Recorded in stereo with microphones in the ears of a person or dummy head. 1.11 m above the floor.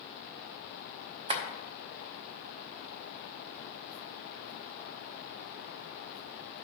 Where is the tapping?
35° right (ahead or behind), 0.8 m.